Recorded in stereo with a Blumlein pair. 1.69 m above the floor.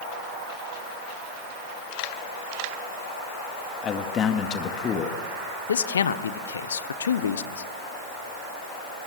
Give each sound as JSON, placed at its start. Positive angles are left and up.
{"t": 3.8, "sound": "a man speaking", "azimuth_deg": 25, "distance_m": 2.0}
{"t": 5.7, "sound": "a man speaking", "azimuth_deg": 70, "distance_m": 1.1}